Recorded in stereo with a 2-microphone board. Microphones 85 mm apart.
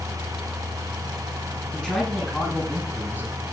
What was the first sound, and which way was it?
A man speaking, 10° left (ahead or behind).